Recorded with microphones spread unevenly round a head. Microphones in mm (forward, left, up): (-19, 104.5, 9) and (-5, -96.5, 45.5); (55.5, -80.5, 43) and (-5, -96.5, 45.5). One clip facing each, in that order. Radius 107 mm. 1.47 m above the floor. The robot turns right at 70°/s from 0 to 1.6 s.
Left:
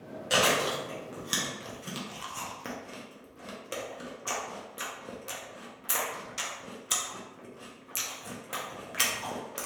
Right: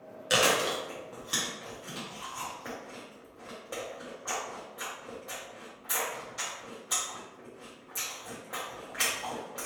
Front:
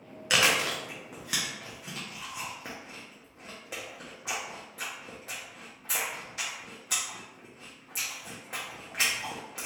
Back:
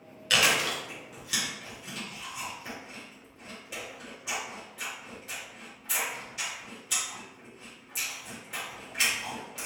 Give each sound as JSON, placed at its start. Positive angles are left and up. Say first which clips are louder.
{"t": 0.3, "sound": "chewing", "louder": "even, even", "azimuth_deg": -45, "distance_m": 0.5}